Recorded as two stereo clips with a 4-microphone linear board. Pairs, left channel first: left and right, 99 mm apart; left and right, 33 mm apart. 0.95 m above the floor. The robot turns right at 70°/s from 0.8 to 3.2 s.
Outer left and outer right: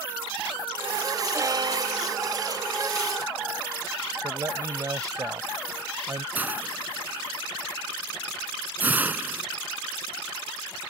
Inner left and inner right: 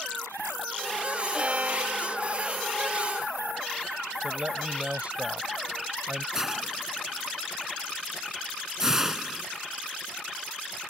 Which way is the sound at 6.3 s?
15° right (ahead or behind).